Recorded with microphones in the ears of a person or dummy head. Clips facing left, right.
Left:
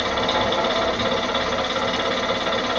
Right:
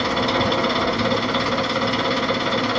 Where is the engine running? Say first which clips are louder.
Right 2 dB; 35° right (ahead or behind), 0.9 m.